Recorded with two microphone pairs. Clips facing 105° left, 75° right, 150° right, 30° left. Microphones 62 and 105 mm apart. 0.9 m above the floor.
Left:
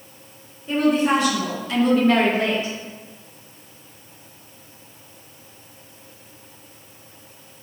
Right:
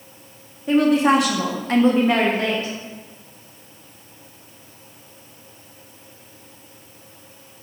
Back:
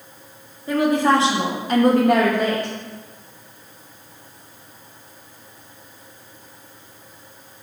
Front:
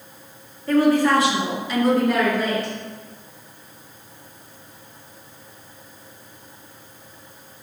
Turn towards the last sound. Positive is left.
turn(degrees=170)